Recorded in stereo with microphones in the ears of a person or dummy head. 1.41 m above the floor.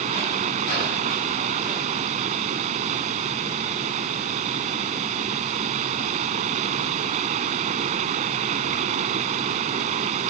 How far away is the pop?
No pop in this recording.